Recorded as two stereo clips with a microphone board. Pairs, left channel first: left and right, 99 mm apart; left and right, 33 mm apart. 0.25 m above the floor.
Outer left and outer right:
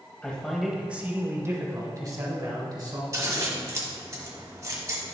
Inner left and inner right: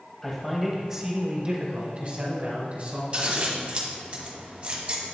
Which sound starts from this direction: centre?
A man speaking, at 0.2 s.